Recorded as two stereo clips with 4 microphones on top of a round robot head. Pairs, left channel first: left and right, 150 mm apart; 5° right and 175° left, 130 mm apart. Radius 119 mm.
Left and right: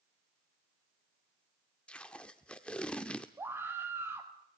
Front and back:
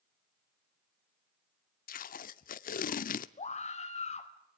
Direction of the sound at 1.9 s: 5° left.